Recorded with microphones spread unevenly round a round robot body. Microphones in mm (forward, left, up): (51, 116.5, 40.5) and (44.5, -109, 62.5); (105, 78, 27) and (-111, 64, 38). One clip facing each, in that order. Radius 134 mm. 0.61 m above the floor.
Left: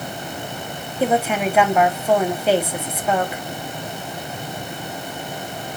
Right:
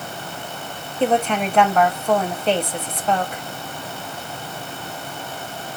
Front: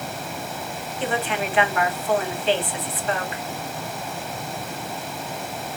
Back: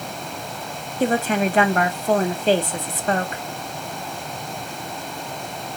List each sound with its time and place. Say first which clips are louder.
1.0 s a woman speaking: even, back 6 dB; 165° left, 1.5 m